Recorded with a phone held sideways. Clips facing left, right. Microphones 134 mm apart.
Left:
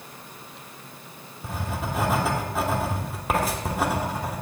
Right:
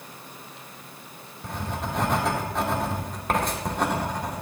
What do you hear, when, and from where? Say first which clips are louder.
1.4 s writing: even; 5° left (ahead or behind), 2 m